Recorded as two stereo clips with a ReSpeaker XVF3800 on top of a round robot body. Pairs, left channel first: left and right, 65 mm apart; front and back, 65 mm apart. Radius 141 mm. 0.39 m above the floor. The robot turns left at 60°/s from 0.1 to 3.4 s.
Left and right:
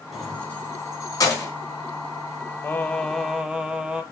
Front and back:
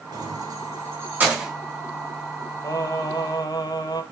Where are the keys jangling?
Straight behind, 3.5 m; by 1.5 s 95° left, 3.5 m.